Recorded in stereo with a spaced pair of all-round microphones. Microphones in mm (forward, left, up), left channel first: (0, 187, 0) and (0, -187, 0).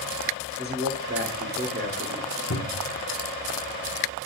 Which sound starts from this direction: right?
A man speaking, at 0.6 s.